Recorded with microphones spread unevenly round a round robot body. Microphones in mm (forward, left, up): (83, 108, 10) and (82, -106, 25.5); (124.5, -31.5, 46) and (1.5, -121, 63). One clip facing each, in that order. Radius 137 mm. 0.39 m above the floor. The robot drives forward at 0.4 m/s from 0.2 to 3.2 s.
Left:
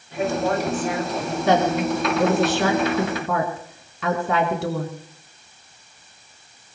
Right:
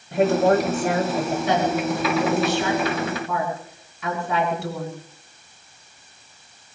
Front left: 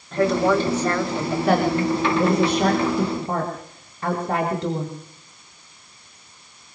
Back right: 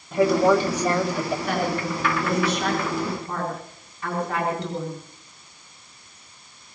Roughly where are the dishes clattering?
I don't hear dishes clattering.